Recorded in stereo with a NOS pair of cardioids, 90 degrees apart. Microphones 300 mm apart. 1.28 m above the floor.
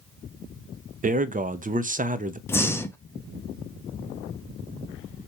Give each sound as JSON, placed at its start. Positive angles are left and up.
{"t": 1.0, "sound": "a man speaking", "azimuth_deg": -25, "distance_m": 0.6}
{"t": 2.5, "sound": "breathing", "azimuth_deg": 10, "distance_m": 0.6}